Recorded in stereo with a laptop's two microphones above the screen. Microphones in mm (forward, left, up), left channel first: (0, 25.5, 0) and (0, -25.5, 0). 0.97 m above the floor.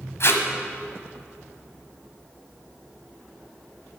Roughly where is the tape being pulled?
Left.